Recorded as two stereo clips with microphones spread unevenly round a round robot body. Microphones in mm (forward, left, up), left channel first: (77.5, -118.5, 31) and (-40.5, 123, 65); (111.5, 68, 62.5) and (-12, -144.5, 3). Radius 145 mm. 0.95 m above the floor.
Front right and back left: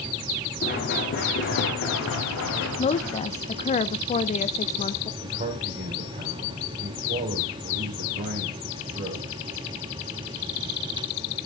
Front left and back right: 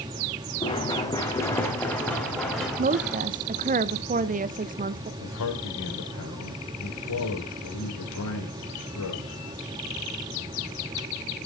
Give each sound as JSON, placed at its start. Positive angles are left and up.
{"t": 0.6, "sound": "running footsteps", "azimuth_deg": -5, "distance_m": 3.0}
{"t": 2.8, "sound": "a woman speaking", "azimuth_deg": -110, "distance_m": 0.6}
{"t": 5.2, "sound": "a man speaking", "azimuth_deg": 60, "distance_m": 3.5}